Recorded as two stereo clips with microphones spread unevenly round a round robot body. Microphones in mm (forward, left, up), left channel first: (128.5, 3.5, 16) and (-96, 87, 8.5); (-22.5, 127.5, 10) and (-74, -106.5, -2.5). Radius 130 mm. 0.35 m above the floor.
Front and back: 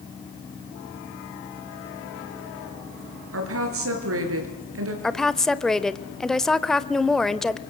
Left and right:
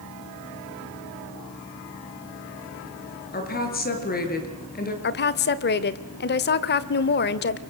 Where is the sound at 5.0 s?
70° left, 1.1 m.